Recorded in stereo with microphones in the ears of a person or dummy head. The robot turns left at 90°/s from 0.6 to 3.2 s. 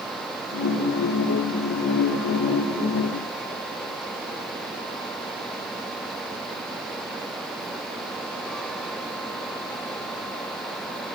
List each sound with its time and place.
Only background noise.